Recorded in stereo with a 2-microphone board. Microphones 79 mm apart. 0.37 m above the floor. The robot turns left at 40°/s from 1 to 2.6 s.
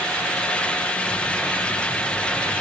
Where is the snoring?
I don't hear snoring.